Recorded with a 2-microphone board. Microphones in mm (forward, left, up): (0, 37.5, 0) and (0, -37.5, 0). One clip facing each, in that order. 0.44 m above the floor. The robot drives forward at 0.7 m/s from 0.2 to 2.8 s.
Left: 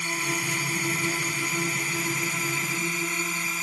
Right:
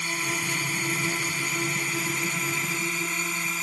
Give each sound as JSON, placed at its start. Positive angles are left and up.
{"t": 0.0, "sound": "a drone", "side_deg": 5}